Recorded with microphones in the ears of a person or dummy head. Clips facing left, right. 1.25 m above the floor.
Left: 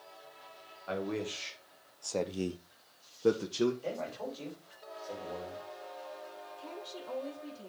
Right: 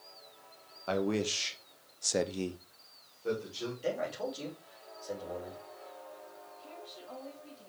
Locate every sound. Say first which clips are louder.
0.9 s a man speaking: right 4 dB; 55° right (ahead or behind), 1.5 m; by 3.7 s 70° left (ahead or behind), 1.3 m
3.8 s a man speaking: right 3 dB; 15° right (ahead or behind), 4 m
6.6 s a woman speaking: left 5 dB; 75° left (ahead or behind), 2.0 m